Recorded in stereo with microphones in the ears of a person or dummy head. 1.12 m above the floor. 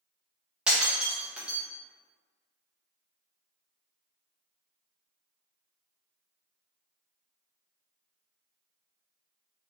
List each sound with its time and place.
0.7 s breaking glass: 5° right (ahead or behind), 0.5 m